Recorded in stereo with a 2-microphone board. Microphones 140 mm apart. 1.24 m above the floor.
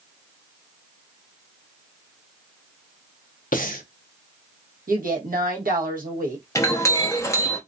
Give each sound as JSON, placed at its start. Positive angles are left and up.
{"t": 3.5, "sound": "breathing", "side_deg": 75, "distance_m": 0.7}
{"t": 4.9, "sound": "a woman speaking", "side_deg": -85, "distance_m": 1.1}
{"t": 6.5, "sound": "a clink", "side_deg": 20, "distance_m": 0.8}